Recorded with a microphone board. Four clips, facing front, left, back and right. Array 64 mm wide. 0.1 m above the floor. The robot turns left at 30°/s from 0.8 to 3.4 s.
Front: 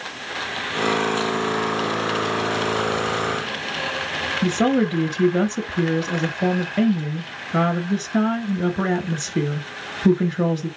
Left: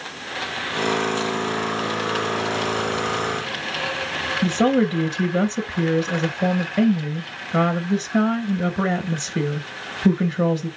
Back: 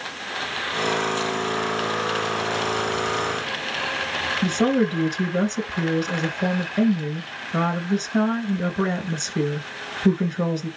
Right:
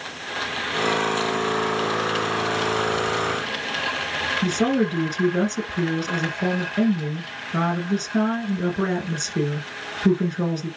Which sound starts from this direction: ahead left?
A woman speaking, at 4.4 s.